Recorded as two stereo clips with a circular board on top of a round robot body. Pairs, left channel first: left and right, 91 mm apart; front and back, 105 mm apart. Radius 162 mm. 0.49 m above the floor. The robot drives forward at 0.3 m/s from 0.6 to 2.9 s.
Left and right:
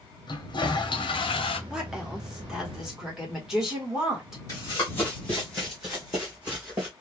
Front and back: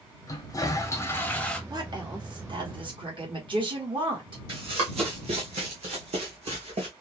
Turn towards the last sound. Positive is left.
turn(degrees=-165)